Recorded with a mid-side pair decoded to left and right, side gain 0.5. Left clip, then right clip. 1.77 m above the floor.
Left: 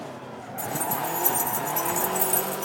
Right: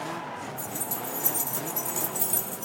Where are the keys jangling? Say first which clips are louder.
Left 6 dB; 10° left, 3 m.